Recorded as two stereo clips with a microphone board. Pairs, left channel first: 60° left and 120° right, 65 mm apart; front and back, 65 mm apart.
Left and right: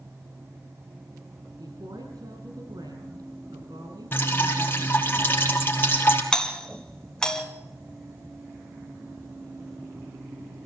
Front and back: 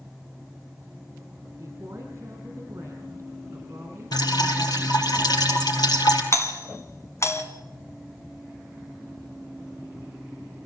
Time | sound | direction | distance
1.6 | a woman speaking | 130° right | 6.5 m
4.1 | dripping | 5° left | 3.5 m
6.3 | a doorbell | 10° right | 2.5 m